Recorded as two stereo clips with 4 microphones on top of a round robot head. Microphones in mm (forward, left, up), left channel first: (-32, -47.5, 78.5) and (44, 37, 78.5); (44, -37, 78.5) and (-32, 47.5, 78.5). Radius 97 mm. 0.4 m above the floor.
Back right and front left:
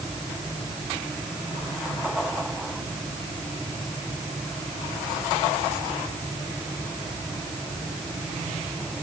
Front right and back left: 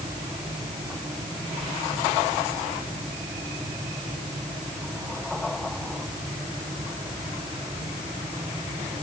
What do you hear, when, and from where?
Only background noise.